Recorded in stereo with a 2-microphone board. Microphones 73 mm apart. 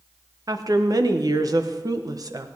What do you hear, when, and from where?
0.5 s a woman speaking: 60° right (ahead or behind), 0.9 m